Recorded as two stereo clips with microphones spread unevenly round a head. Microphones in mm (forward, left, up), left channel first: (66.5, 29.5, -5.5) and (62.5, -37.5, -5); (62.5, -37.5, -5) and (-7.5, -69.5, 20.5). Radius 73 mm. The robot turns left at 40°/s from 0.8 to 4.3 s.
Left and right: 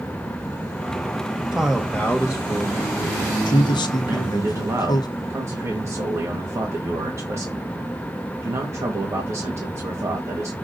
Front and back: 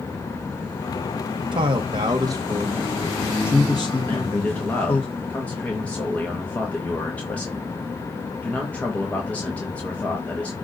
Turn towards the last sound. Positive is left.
turn(degrees=-50)